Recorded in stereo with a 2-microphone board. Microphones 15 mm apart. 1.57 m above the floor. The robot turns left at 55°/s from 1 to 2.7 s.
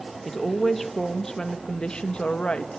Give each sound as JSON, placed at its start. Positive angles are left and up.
{"t": 0.2, "sound": "a woman speaking", "azimuth_deg": 175, "distance_m": 2.5}